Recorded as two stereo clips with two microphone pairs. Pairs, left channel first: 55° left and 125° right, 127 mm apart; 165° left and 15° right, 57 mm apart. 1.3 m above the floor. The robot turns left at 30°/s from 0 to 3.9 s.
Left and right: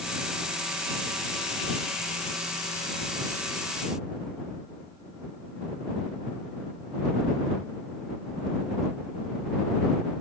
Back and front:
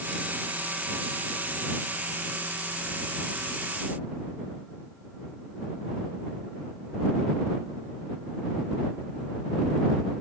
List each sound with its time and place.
Only background noise.